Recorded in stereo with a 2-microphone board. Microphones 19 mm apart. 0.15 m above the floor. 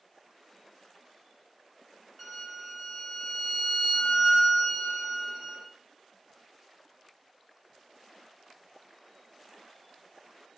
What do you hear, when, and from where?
2.2 s a violin: 5° right (ahead or behind), 1.0 m